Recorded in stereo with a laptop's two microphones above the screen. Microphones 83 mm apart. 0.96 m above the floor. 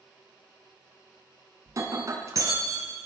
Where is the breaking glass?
40° right (ahead or behind), 3.5 m.